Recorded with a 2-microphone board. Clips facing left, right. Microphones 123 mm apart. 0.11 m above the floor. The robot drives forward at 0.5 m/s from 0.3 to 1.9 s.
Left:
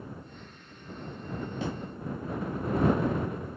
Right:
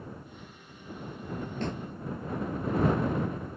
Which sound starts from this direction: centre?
A snare drum, at 1.6 s.